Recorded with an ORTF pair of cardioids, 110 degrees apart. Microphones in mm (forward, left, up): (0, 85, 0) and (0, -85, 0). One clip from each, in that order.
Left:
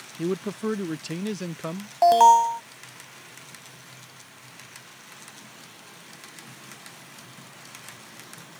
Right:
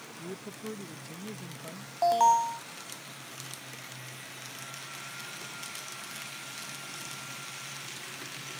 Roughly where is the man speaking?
Left.